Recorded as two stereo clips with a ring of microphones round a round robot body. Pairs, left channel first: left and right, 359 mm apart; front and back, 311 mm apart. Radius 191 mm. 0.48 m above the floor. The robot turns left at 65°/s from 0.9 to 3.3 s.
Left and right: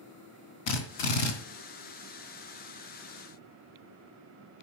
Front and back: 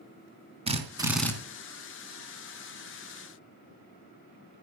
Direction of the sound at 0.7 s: 110° left.